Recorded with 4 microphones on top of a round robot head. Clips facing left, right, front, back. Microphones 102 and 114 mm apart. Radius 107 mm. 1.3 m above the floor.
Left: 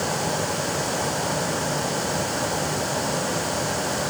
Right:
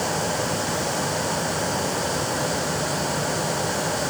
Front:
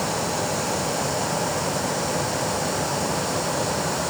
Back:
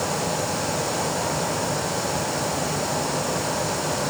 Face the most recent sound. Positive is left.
No sound to turn to.